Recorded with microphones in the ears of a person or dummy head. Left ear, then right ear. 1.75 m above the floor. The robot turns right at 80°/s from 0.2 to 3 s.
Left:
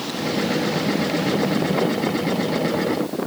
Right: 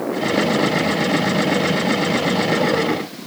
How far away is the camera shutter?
I don't hear a camera shutter.